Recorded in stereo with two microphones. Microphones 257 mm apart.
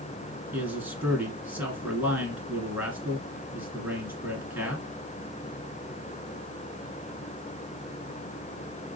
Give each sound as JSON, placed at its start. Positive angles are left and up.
{"t": 0.5, "sound": "a man speaking", "side_deg": -10, "distance_m": 1.3}